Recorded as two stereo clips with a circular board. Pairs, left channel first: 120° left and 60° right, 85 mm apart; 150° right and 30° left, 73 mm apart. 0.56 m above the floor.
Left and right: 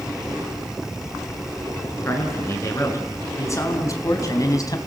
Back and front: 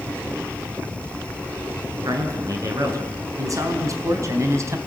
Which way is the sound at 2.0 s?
65° left.